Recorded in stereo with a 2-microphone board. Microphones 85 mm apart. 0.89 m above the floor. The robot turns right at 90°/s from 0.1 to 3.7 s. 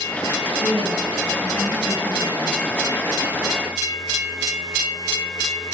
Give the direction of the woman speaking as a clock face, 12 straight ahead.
3 o'clock.